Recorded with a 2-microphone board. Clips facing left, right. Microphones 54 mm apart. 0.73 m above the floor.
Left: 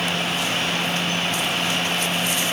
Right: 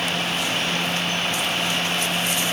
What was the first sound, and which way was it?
Only background noise.